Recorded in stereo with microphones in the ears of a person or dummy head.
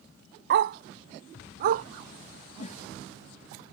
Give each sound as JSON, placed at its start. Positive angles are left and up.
{"t": 0.5, "sound": "a dog barking", "side_deg": -60}
{"t": 2.6, "sound": "a whoosh", "side_deg": 40}